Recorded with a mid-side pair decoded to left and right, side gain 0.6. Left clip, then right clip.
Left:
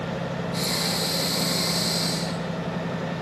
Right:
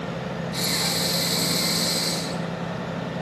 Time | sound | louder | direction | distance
0.5 | breathing | right 2 dB | 25° right | 9 m